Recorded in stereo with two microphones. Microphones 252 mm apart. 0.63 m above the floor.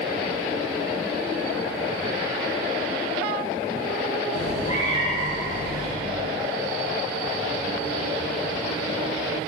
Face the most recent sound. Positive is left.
turn(degrees=30)  # may be behind; listen again after turning